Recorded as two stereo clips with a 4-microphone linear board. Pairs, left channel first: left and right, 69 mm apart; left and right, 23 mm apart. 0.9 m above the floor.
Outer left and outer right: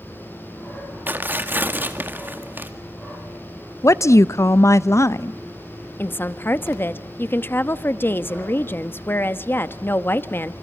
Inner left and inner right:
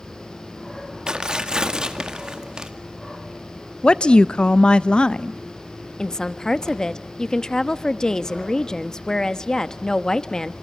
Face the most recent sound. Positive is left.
turn(degrees=30)  # may be behind; listen again after turning